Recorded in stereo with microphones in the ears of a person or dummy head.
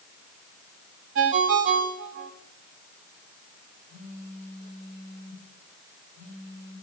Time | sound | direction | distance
1.1 | a ringtone | 45° right (ahead or behind) | 1.0 m
3.9 | a phone buzzing | 15° left (ahead or behind) | 7 m